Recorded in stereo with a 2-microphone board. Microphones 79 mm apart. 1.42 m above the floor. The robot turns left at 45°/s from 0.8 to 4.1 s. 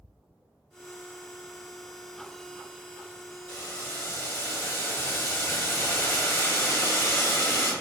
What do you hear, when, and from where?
3.5 s boiling: 50° left (ahead or behind), 1.2 m; by 7.7 s 30° left (ahead or behind), 1.2 m